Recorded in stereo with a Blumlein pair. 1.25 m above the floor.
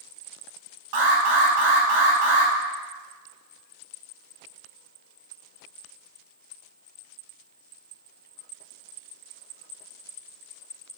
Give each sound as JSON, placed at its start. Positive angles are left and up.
{"t": 0.9, "sound": "an alarm", "azimuth_deg": -50, "distance_m": 0.9}